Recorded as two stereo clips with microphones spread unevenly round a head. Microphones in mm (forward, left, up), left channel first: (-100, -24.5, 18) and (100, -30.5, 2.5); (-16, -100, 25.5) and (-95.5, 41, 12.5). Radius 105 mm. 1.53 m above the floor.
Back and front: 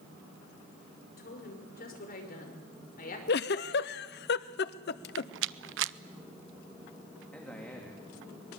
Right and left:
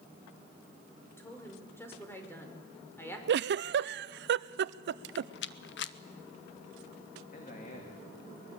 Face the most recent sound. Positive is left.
turn(degrees=-100)